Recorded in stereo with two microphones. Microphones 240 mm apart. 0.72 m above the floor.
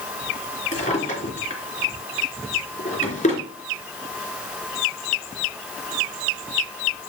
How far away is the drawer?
About 3.5 m.